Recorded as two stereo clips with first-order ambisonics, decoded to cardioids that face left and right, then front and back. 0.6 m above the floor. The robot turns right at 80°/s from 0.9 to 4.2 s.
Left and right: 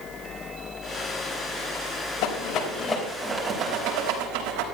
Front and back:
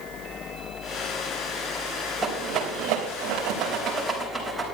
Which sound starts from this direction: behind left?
A rattle, at 2.2 s.